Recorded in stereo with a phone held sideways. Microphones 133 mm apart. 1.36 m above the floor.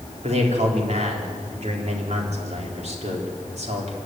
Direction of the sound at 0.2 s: 60° right (ahead or behind).